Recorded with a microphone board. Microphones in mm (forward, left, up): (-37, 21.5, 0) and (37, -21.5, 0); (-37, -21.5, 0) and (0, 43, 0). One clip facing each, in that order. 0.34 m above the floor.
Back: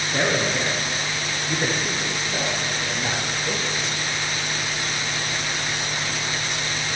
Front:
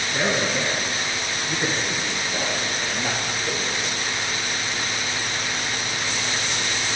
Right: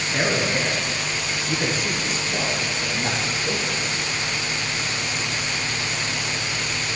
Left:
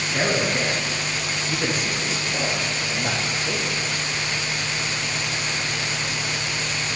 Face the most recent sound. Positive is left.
turn(degrees=-160)